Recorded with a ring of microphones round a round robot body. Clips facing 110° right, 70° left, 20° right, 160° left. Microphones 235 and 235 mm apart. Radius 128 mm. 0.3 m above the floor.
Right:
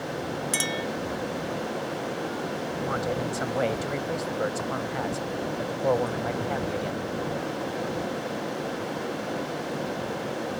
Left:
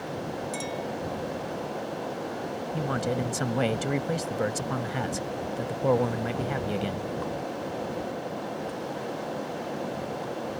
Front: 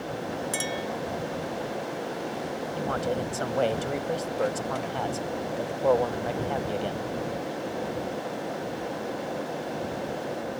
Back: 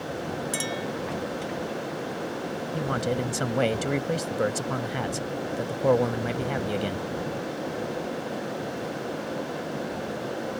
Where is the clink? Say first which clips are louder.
Right 2 dB, back 1 dB; 115° right.